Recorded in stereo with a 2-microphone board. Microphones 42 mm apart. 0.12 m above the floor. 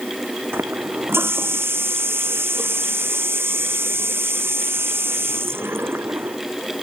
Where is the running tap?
75° right (ahead or behind).